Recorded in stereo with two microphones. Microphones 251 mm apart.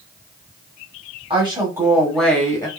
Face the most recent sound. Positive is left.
turn(degrees=15)  # may be behind; listen again after turning